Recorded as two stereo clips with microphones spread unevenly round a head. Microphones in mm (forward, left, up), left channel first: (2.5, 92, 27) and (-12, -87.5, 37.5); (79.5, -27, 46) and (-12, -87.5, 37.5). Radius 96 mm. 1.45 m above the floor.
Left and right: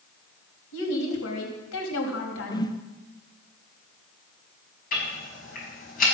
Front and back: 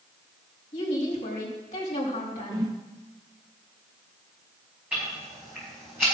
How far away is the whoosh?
About 0.6 m.